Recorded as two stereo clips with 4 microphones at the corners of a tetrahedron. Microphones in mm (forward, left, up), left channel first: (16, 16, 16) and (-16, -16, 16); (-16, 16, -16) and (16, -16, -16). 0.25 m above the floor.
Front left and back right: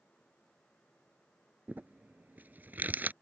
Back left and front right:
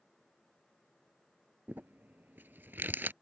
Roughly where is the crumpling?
Right.